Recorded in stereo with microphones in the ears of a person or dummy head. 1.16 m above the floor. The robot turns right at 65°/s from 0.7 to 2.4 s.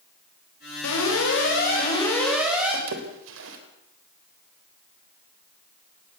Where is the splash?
70° right (ahead or behind), 3.5 m.